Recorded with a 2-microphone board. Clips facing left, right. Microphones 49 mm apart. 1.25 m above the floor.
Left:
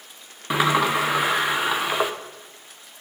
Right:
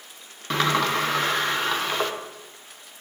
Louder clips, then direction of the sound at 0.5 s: Left 2 dB; 15° left (ahead or behind).